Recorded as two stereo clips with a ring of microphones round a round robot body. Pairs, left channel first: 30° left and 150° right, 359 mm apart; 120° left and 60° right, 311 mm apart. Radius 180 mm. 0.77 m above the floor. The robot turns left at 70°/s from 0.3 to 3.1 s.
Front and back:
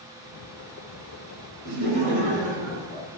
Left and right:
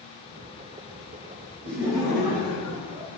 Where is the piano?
No piano in this recording.